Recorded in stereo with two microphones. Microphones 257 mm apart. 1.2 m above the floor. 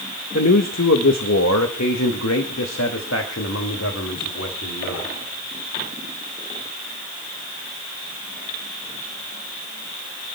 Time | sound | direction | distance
0.3 | a man speaking | 70° left (ahead or behind) | 1.6 m